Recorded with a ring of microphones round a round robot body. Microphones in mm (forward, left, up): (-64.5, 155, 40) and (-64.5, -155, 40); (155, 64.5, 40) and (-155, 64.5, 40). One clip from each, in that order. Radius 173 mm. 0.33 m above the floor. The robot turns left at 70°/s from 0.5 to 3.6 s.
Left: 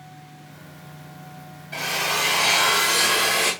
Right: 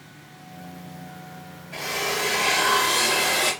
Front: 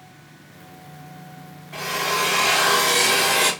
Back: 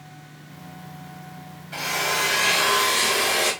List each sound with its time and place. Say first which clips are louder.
1.7 s a drill: left 3 dB, front 1 dB; 135° left, 1.7 m; by 3.5 s 10° left, 1.7 m